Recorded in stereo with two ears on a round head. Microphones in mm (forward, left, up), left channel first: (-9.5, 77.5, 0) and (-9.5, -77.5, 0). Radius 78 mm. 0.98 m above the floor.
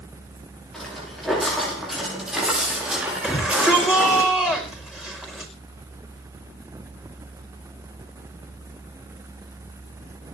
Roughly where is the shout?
Centre.